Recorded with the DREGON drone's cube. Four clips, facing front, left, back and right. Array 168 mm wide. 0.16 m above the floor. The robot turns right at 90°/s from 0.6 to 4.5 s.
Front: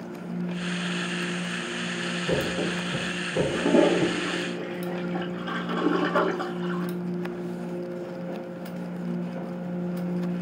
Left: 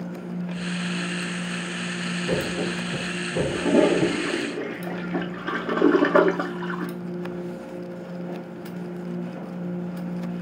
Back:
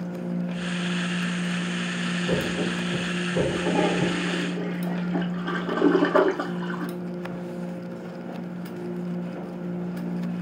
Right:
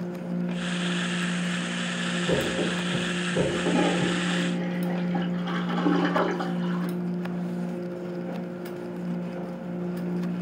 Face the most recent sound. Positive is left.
turn(degrees=115)